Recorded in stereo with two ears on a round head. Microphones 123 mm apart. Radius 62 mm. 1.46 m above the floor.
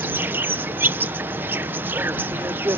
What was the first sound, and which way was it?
An insect, 15° right (ahead or behind).